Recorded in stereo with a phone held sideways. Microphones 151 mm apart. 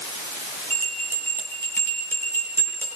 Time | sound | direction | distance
0.7 | a bell | 15° left (ahead or behind) | 8.5 m